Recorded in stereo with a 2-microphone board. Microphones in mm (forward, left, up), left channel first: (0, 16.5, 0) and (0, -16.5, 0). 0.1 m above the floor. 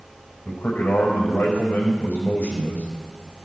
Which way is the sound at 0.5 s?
75° left (ahead or behind).